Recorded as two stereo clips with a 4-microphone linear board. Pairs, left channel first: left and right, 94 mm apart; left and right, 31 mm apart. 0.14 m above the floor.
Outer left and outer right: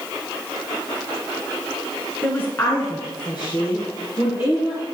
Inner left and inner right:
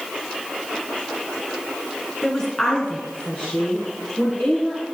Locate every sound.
2.2 s a woman speaking: 15° left (ahead or behind), 1.9 m; by 4.8 s 65° left (ahead or behind), 4 m